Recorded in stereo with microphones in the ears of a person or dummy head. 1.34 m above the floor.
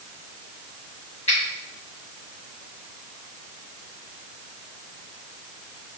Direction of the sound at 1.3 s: 30° left (ahead or behind).